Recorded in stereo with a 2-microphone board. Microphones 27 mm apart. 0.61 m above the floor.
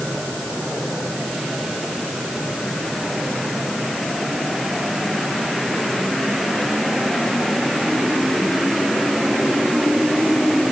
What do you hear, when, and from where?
Only background noise.